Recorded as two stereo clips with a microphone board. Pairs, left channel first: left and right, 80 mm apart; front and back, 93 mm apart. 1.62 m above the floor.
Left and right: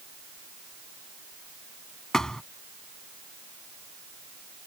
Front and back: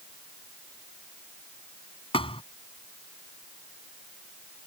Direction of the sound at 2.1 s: 5° left.